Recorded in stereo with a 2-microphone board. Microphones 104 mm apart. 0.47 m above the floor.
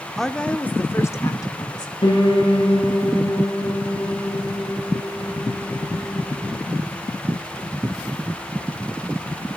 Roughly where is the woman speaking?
Centre.